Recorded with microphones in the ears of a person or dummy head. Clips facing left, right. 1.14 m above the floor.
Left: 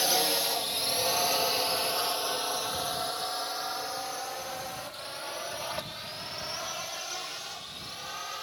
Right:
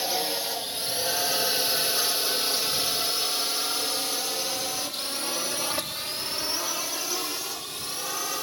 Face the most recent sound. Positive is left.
turn(degrees=-75)  # may be behind; listen again after turning